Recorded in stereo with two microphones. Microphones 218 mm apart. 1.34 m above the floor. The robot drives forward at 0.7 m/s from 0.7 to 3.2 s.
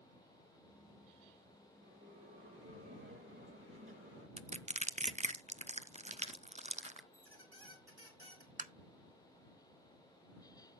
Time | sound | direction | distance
1.8 | a bell | 85° right | 8.5 m
4.4 | crushing | 30° right (ahead or behind) | 0.6 m
7.1 | a squeak | 75° right (ahead or behind) | 3 m
8.6 | tapping | 35° right (ahead or behind) | 0.8 m